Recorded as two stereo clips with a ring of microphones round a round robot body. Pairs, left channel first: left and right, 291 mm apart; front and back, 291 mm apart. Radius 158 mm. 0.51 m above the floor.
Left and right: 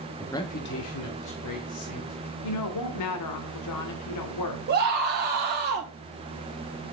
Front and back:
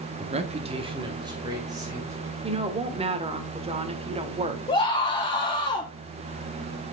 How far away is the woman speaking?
About 1.4 m.